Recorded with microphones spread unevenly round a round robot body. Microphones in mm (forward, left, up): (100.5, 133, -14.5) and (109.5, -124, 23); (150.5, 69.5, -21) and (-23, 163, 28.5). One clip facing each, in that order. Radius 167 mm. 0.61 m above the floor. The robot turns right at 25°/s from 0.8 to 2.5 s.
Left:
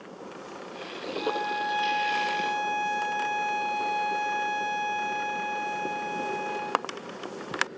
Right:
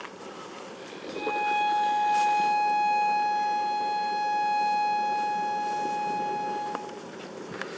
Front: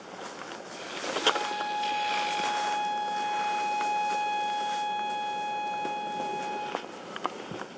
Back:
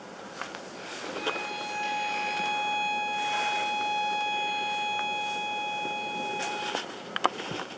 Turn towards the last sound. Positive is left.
turn(degrees=-115)